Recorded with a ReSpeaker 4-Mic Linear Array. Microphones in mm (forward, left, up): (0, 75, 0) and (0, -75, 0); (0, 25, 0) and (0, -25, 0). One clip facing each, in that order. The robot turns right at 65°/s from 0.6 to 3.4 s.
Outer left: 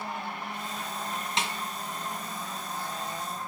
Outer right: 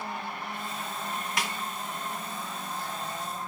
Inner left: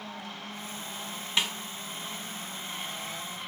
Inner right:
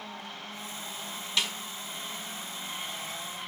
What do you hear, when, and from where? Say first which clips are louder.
1.4 s a snare drum: outer left 2 dB, inner left 1 dB; 25° left (ahead or behind), 1.7 m; by 1.5 s 30° left (ahead or behind), 1.7 m